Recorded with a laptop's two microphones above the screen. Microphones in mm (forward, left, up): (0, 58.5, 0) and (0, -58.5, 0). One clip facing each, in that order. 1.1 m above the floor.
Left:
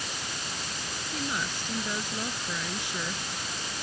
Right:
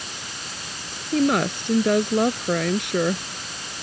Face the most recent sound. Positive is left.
turn(degrees=-65)  # may be behind; listen again after turning